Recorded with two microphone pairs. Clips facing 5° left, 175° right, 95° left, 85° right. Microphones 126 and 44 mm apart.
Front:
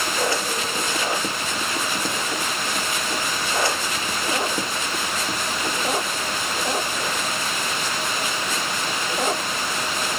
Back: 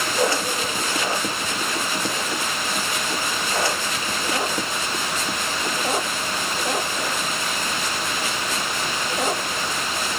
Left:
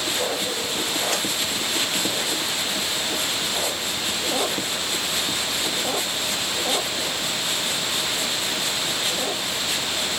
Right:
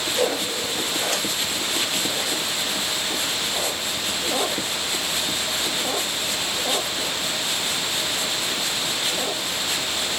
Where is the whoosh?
100° right, 4 m.